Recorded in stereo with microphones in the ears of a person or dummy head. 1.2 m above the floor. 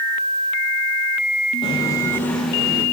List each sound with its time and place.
1.6 s footsteps: 30° left (ahead or behind), 2.5 m; by 2.8 s 15° right (ahead or behind), 2.5 m